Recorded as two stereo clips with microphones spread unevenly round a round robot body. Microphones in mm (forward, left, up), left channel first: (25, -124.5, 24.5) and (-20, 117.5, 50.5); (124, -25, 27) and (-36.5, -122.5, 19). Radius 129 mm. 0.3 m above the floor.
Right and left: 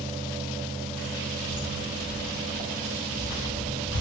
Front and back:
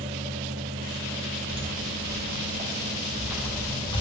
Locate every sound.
1.5 s footsteps: 120° right, 3.5 m; by 4.0 s 30° right, 1.9 m